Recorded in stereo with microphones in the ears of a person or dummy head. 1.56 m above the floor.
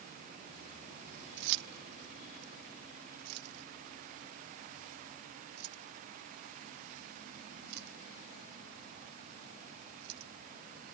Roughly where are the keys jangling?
Right.